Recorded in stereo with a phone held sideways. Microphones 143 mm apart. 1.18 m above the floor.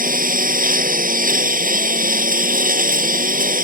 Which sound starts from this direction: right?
A lawn mower, at 0.0 s.